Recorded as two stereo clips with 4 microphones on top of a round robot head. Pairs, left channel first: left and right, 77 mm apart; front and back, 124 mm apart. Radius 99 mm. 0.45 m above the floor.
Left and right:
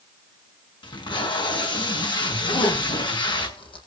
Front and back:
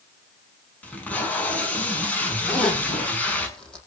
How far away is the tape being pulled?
About 6 m.